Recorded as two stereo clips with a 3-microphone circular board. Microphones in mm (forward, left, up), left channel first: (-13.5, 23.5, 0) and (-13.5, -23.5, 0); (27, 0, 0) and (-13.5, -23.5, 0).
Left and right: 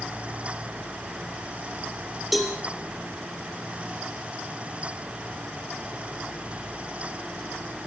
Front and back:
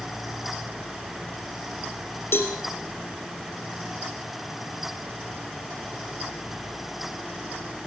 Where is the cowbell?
Straight ahead, 3.5 m.